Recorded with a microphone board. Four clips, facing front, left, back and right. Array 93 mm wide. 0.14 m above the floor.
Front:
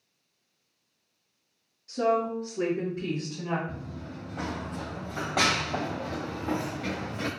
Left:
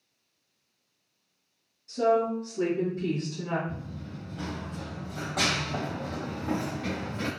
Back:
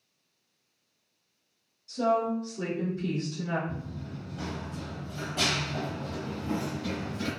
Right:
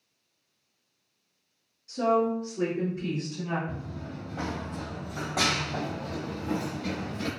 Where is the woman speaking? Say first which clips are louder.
Even, front 1 dB; 15° right, 1.6 m.